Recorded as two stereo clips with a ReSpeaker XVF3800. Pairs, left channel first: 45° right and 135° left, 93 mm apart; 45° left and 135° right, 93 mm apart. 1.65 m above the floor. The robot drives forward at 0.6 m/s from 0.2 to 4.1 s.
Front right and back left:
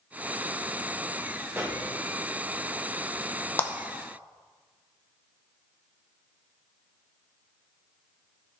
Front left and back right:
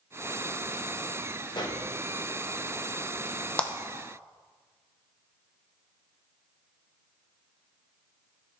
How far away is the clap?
About 0.6 m.